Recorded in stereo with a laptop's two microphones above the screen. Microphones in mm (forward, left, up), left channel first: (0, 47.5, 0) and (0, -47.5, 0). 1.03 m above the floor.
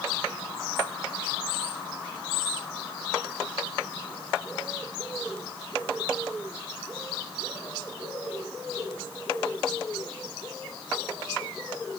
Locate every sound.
Only background noise.